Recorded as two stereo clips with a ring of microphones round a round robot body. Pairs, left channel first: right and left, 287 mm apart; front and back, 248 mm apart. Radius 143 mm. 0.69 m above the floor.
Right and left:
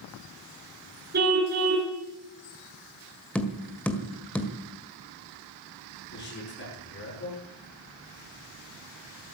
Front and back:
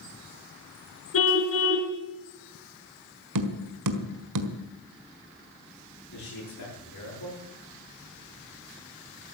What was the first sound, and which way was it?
A car horn, 30° left.